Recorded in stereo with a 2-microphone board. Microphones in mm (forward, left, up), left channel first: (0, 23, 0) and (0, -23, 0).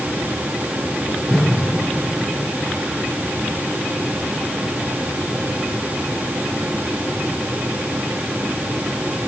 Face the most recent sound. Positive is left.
turn(degrees=5)  # may be behind; listen again after turning